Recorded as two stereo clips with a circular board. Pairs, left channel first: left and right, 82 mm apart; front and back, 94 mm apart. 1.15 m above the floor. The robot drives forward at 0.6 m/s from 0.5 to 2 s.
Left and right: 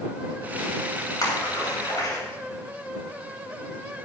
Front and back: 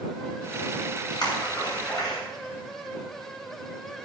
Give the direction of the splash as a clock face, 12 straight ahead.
11 o'clock.